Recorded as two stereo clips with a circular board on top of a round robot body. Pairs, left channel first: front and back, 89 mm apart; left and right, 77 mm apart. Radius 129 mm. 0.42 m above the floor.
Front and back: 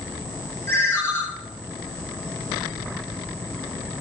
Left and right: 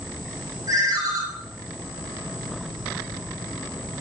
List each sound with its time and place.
0.7 s a ringtone: 60° right, 0.8 m